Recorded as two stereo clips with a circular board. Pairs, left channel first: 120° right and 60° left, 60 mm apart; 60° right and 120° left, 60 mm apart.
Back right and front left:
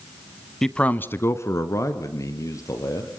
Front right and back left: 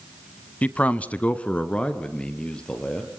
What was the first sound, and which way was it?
A man speaking, 45° right.